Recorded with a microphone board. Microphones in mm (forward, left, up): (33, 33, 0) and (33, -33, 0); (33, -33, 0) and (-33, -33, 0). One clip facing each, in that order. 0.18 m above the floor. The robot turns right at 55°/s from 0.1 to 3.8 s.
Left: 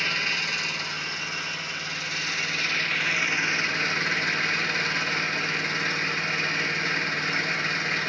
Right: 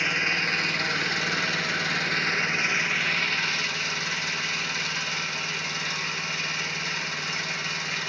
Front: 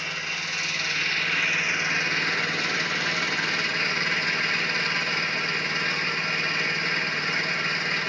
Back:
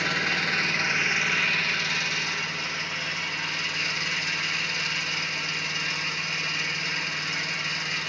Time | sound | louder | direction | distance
0.0 | an engine running | right 2 dB, back 6 dB | 160° right | 0.7 m